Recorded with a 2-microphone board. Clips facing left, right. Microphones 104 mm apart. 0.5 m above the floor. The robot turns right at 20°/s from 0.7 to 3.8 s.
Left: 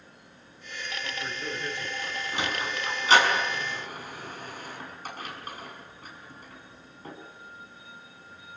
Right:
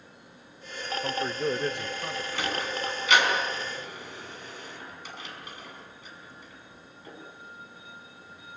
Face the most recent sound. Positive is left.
turn(degrees=45)  # may be behind; listen again after turning